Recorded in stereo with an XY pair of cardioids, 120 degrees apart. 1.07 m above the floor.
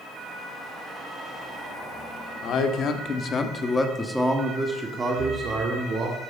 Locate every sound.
2.4 s a man speaking: 65° left, 2 m; by 6.2 s 40° right, 3 m
5.2 s breathing: 45° right, 4 m